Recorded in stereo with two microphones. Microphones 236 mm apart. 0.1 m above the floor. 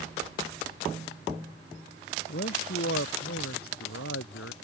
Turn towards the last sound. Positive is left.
turn(degrees=75)  # may be behind; listen again after turning